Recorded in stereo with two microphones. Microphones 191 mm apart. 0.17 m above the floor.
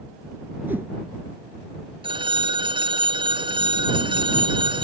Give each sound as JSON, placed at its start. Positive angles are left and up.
{"t": 0.7, "sound": "a whoosh", "side_deg": -10}
{"t": 2.0, "sound": "a phone ringing", "side_deg": -25}